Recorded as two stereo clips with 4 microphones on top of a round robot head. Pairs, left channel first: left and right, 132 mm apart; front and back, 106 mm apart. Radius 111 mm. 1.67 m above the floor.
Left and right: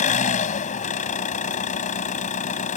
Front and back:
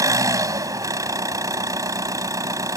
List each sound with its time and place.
0.0 s an engine running: 120° left